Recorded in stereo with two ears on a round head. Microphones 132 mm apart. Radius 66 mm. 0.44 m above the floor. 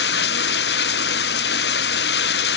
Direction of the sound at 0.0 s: 75° left (ahead or behind).